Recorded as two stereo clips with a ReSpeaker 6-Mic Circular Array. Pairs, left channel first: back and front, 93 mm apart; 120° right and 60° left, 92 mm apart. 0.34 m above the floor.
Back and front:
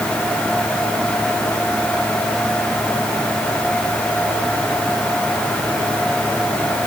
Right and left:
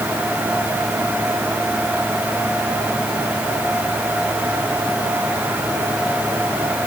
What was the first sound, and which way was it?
Only background noise.